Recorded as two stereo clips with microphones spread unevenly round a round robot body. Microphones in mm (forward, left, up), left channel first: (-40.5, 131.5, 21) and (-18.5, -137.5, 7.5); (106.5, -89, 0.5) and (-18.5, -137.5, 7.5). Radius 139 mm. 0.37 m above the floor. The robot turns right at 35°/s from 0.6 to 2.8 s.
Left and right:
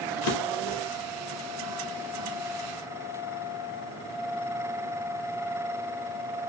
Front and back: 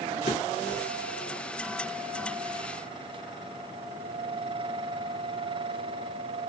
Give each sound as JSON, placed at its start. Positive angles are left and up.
{"t": 0.2, "sound": "a drawer", "azimuth_deg": 60, "distance_m": 0.7}